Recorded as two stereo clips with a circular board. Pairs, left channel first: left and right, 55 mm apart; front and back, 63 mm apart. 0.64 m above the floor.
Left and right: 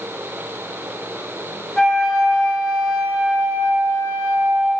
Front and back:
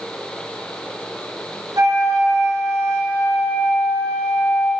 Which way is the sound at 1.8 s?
165° left.